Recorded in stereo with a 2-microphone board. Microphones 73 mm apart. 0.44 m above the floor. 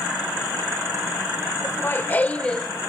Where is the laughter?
35° left (ahead or behind), 1.3 m; by 2.7 s 5° left (ahead or behind), 1.1 m.